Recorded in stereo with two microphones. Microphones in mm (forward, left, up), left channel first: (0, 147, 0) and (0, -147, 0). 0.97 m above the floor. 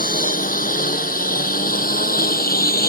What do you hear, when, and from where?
0.0 s a lawn mower: 30° left (ahead or behind)